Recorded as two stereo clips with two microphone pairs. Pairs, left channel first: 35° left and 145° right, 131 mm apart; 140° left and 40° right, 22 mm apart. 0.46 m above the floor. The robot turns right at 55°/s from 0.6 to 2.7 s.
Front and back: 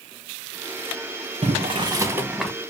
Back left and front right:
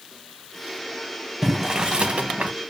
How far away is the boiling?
About 0.7 m.